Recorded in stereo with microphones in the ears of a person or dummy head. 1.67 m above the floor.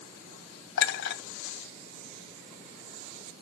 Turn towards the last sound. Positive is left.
turn(degrees=65)  # may be behind; listen again after turning